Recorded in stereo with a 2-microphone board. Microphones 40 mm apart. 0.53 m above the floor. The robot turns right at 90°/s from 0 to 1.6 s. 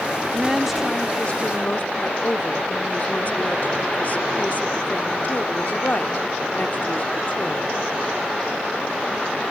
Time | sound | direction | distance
0.3 | a woman speaking | 35° right | ?